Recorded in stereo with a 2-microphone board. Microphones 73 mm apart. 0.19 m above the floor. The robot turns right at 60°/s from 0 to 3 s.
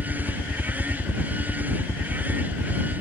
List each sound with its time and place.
0.0 s a helicopter: 75° left (ahead or behind); by 3.0 s 65° right (ahead or behind)